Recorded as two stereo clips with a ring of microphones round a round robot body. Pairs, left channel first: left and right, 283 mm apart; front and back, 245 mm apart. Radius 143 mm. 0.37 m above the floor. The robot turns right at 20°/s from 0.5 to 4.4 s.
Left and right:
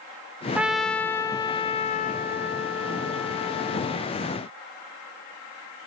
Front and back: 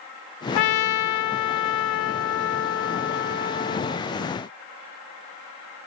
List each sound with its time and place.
0.6 s a trumpet: 5° right, 0.6 m; by 4.0 s 65° left, 0.6 m